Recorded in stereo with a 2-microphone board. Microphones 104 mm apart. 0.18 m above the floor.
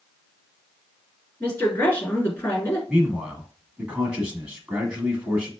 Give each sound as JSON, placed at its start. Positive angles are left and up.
{"t": 1.4, "sound": "a woman speaking", "side_deg": 20, "distance_m": 2.0}
{"t": 2.9, "sound": "a man speaking", "side_deg": -10, "distance_m": 1.1}